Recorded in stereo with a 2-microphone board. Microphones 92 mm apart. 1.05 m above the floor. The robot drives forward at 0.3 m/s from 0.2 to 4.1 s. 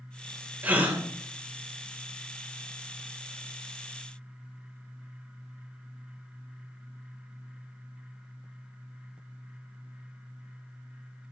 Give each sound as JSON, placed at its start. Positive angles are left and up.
{"t": 0.6, "sound": "a gasp", "side_deg": -20, "distance_m": 1.5}